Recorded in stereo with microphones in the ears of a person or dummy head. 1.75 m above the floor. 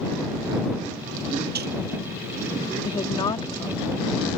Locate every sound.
1.6 s a dropped coin: 60° right (ahead or behind)
2.9 s a woman speaking: 30° left (ahead or behind)